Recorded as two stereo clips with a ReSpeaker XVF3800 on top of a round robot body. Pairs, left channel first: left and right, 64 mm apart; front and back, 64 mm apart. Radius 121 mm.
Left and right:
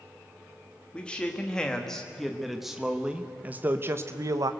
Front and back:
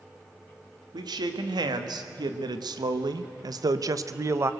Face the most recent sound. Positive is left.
turn(degrees=-125)